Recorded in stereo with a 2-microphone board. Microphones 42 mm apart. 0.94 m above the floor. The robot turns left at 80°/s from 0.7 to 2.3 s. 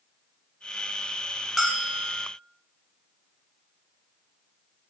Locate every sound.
1.6 s a bell: straight ahead, 4 m; by 2.2 s 50° right, 4 m